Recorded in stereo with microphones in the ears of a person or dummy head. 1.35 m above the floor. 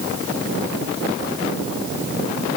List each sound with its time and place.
Only background noise.